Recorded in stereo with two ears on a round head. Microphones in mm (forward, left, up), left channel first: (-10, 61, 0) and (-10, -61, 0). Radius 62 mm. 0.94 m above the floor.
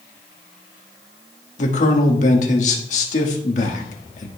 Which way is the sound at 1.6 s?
60° left (ahead or behind).